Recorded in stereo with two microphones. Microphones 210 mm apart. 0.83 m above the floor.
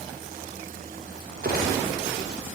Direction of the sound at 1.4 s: 45° right (ahead or behind).